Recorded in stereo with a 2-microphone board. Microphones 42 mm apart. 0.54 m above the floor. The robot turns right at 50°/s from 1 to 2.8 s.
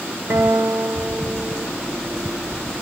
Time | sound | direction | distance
0.3 | a guitar | 95° right | 0.9 m